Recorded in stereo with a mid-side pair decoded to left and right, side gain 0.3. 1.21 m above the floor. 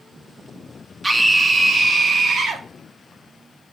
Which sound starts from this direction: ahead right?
A scream, at 1.0 s.